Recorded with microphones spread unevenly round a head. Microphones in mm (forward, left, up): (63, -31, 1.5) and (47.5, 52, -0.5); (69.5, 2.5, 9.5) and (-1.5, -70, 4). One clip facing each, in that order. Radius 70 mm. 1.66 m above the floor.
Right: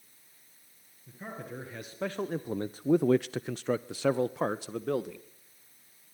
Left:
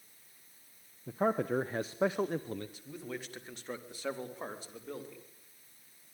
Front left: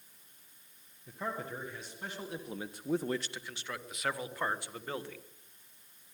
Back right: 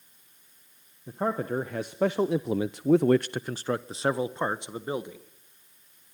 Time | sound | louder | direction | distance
1.1 | a man speaking | left 12 dB, back right 10 dB | 155° left | 1.3 m